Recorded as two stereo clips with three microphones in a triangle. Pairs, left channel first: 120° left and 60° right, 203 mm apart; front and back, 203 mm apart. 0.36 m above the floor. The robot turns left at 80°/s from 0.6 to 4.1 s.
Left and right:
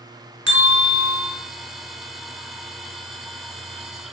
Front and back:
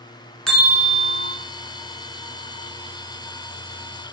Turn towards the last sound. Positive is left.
turn(degrees=-5)